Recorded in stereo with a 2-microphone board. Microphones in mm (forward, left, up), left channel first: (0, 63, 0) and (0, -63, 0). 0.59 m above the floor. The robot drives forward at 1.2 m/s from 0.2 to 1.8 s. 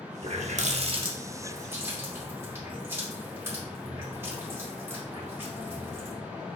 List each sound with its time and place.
0.2 s a running tap: 50° right (ahead or behind), 0.7 m; by 6.2 s 20° right (ahead or behind), 1.6 m